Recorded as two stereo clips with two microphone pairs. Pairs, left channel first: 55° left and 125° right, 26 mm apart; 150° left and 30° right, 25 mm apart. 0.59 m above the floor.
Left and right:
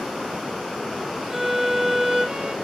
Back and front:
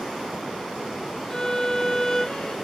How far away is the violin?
About 0.6 m.